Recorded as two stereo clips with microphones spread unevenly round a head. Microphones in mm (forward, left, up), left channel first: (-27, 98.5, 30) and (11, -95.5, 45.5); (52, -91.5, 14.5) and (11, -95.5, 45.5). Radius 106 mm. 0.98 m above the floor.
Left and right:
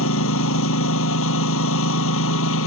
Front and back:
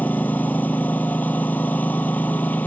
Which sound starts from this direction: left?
A lawn mower, at 0.0 s.